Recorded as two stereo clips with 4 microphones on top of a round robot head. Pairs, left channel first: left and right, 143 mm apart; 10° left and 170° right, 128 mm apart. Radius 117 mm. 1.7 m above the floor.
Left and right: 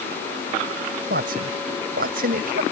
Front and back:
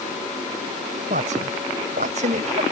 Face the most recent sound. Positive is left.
turn(degrees=-125)